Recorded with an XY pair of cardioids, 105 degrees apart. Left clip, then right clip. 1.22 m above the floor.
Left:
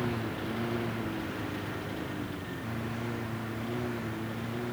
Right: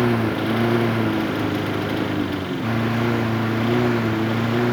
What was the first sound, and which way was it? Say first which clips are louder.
A lawn mower: right 13 dB; 70° right.